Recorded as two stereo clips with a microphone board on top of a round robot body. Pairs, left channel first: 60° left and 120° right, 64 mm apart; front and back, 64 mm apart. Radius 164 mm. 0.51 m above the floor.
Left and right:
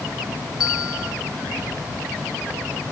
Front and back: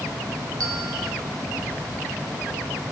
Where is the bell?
155° left, 1.0 m.